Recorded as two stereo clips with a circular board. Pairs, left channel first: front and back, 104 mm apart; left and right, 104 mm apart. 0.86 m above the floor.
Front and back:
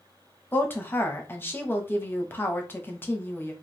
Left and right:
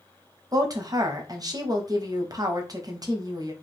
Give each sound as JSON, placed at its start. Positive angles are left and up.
{"t": 0.5, "sound": "a woman speaking", "azimuth_deg": -60, "distance_m": 0.9}